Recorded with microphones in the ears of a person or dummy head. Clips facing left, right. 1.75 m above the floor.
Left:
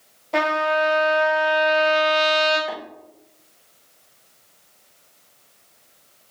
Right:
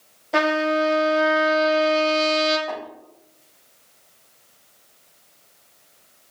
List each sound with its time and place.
0.3 s a trumpet: 10° right (ahead or behind), 1.6 m
2.7 s tapping: 25° left (ahead or behind), 4 m